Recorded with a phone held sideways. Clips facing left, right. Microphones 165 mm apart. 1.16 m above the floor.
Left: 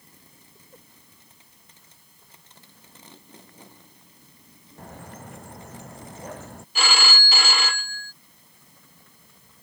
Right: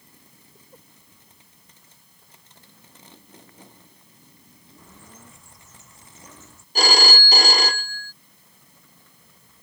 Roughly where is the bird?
Left.